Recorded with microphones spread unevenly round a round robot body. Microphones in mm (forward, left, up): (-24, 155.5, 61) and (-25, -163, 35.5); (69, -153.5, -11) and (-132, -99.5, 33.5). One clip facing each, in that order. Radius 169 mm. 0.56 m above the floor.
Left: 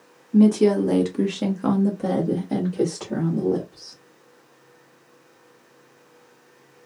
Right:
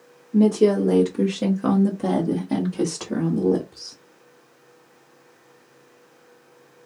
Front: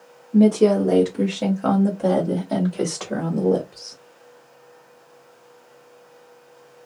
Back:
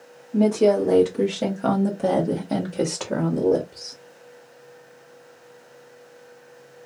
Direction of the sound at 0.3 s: 35° left.